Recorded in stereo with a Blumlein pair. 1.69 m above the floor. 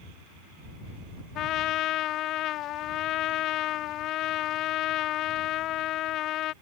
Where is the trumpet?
35° left.